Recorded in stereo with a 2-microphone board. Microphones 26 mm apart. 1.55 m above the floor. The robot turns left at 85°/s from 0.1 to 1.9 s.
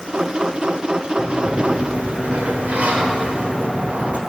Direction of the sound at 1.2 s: 35° right.